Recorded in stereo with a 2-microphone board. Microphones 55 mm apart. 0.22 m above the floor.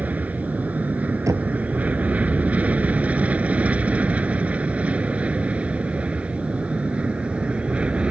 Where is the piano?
No piano in this recording.